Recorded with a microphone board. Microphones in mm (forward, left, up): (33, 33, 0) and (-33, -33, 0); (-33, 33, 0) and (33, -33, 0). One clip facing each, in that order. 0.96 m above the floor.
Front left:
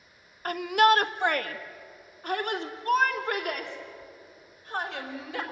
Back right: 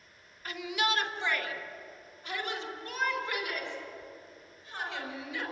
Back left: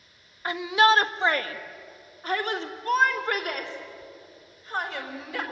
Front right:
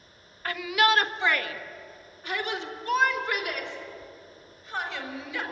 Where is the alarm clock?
No alarm clock in this recording.